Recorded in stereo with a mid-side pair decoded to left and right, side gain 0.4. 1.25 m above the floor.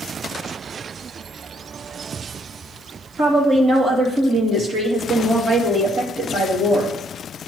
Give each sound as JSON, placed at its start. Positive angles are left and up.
{"t": 3.2, "sound": "a woman speaking", "azimuth_deg": -60, "distance_m": 2.5}